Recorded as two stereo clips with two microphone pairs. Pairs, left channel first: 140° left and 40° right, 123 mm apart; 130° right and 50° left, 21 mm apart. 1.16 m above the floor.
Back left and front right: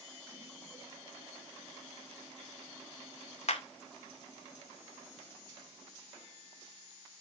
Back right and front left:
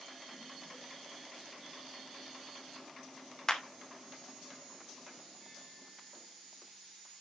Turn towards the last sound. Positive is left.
turn(degrees=165)